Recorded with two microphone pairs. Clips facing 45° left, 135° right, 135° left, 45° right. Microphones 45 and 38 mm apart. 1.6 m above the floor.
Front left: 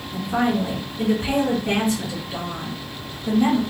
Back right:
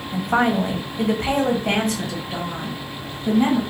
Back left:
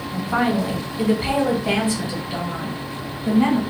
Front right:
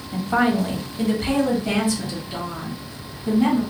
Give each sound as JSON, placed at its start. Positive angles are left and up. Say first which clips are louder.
{"t": 0.1, "sound": "a woman speaking", "louder": "back right 3 dB, front right 1 dB", "azimuth_deg": -130, "distance_m": 0.7}